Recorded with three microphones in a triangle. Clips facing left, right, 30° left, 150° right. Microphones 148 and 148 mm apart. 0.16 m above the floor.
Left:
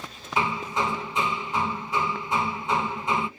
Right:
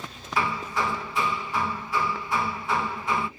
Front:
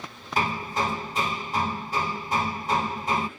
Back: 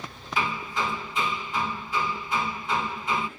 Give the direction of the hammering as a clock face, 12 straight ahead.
11 o'clock.